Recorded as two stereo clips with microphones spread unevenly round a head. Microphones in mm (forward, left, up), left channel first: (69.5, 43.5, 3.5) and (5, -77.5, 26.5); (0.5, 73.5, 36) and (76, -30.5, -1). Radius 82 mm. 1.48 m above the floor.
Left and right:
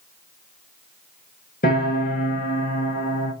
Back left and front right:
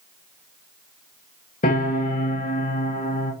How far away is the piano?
About 5 m.